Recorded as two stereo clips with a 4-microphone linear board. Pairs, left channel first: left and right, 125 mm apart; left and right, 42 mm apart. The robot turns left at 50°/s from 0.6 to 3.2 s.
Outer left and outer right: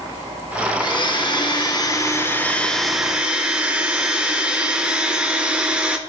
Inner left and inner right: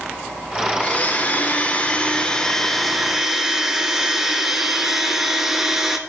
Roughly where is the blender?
Left.